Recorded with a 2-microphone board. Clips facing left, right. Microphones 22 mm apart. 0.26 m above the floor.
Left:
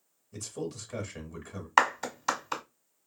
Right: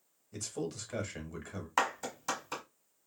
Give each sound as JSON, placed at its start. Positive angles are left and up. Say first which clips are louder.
{"t": 0.3, "sound": "a man speaking", "louder": "left 1 dB", "side_deg": -15, "distance_m": 0.9}
{"t": 1.8, "sound": "a clap", "louder": "left 8 dB", "side_deg": 35, "distance_m": 0.9}